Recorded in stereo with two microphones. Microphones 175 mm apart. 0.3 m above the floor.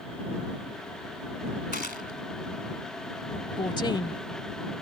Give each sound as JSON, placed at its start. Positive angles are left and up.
{"t": 1.7, "sound": "a gunshot", "side_deg": 65}
{"t": 3.6, "sound": "a woman speaking", "side_deg": 25}